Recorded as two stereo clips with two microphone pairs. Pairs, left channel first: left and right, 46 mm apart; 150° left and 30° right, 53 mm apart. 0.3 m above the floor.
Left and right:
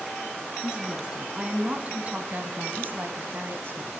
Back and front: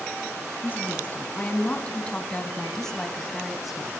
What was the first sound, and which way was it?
A woman speaking, 160° right.